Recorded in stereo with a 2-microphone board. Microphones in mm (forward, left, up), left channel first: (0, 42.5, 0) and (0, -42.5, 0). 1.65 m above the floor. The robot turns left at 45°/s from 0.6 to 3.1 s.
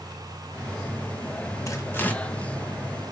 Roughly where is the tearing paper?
Left.